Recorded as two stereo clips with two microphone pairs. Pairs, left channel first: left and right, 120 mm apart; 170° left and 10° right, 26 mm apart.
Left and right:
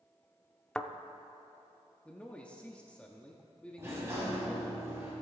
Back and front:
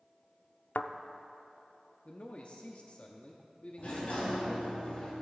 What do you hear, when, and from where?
0.8 s a thud: 170° left, 0.5 m
2.0 s a man speaking: 165° left, 0.8 m
3.8 s a sliding door: 160° right, 3.5 m